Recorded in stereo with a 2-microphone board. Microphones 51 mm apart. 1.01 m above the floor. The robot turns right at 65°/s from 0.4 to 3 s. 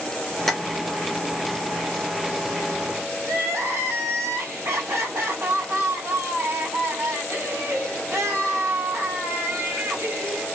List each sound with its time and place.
0.5 s tapping: 5° left (ahead or behind), 0.8 m; by 0.6 s 10° left (ahead or behind), 0.8 m
3.2 s crying: 60° right (ahead or behind), 1.7 m